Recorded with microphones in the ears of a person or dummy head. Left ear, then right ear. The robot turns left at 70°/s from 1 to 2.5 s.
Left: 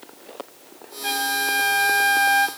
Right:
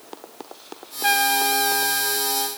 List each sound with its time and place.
1.0 s a trumpet: 145° right, 1.6 m; by 2.5 s 115° left, 1.6 m